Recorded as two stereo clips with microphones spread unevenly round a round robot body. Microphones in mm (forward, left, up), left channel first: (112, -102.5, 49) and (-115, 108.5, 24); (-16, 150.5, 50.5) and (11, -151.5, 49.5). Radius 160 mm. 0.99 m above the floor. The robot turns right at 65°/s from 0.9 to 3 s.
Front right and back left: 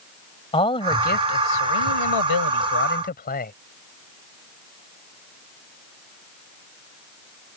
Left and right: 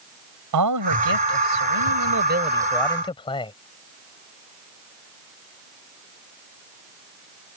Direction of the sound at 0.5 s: 115° right.